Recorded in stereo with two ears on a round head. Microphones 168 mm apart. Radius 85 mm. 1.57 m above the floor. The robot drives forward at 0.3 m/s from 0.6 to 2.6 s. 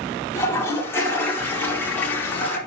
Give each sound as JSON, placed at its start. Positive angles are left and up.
{"t": 0.3, "sound": "a toilet flushing", "side_deg": 15, "distance_m": 2.5}